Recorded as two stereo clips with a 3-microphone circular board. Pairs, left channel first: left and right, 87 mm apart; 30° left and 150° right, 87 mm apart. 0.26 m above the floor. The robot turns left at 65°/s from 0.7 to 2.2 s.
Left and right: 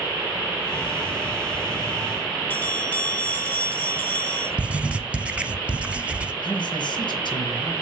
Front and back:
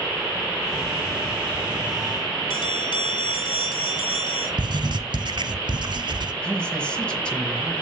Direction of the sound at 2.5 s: 25° left.